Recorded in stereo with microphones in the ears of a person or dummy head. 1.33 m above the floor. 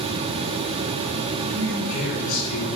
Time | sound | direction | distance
1.5 | a man speaking | 65° left (ahead or behind) | 4.5 m